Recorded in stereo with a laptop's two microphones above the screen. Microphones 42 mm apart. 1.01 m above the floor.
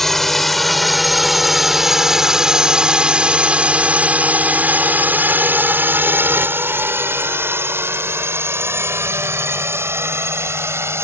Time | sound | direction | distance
0.0 | a drone | 5° left (ahead or behind) | ?